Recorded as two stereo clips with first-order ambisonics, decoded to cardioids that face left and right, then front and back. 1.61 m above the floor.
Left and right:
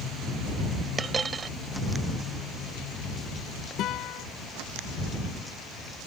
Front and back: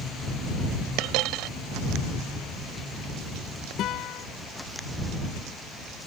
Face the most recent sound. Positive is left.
turn(degrees=45)